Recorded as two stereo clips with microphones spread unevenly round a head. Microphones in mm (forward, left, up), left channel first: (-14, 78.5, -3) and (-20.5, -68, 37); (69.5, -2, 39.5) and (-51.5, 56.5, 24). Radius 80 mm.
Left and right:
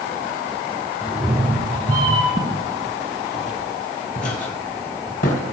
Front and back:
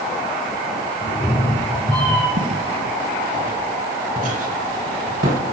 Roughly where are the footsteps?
Behind left.